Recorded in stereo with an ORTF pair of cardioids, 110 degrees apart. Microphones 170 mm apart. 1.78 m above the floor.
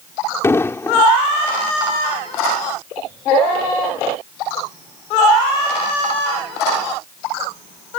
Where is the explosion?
15° left.